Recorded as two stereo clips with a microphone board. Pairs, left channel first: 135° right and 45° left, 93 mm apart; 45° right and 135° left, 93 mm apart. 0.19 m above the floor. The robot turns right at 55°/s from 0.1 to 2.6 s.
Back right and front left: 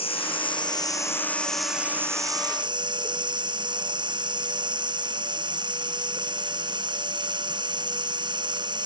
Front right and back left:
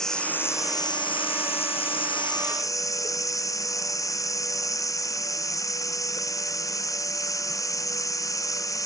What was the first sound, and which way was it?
Running water, 130° right.